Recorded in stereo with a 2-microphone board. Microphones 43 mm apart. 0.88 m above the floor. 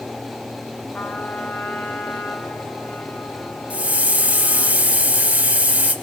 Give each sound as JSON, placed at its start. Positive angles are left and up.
{"t": 0.9, "sound": "a trumpet", "side_deg": 50, "distance_m": 1.9}
{"t": 3.7, "sound": "a hiss", "side_deg": -35, "distance_m": 1.4}